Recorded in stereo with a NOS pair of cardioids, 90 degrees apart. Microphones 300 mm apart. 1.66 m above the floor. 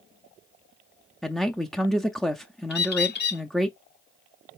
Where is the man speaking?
Straight ahead, 0.6 m.